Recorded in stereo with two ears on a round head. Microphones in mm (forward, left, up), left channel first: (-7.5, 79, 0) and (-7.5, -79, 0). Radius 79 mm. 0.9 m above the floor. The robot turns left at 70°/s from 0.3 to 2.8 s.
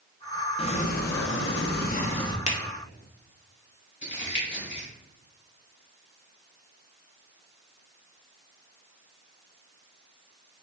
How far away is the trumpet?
I don't hear a trumpet.